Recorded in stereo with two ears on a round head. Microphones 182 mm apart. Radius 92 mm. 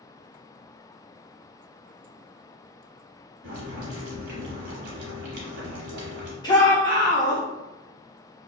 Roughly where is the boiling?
Right.